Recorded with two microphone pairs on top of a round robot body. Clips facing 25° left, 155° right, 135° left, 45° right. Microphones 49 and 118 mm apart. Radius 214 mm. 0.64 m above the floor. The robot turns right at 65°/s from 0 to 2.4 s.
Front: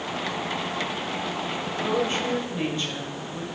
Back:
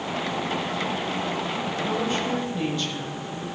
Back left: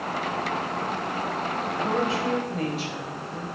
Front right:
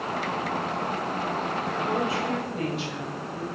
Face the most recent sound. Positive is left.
turn(degrees=90)